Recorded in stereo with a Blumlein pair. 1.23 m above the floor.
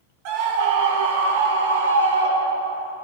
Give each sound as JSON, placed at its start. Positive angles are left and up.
{"t": 0.2, "sound": "a scream", "azimuth_deg": -45, "distance_m": 1.3}